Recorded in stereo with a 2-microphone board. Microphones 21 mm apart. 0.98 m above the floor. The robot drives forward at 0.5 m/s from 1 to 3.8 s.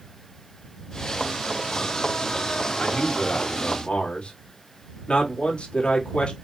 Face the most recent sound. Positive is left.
turn(degrees=45)  # may be behind; listen again after turning